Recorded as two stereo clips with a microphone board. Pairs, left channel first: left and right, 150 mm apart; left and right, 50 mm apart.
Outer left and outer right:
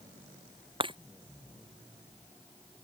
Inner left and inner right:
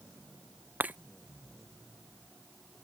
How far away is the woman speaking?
I don't hear a woman speaking.